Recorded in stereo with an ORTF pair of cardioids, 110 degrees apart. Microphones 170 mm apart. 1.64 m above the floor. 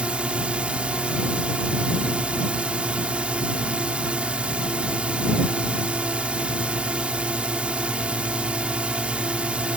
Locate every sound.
0.0 s a drone: 5° right